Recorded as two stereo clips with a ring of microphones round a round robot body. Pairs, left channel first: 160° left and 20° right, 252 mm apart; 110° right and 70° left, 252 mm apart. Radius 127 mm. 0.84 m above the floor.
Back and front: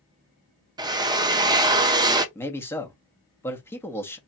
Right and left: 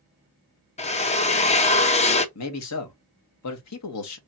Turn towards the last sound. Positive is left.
turn(degrees=-120)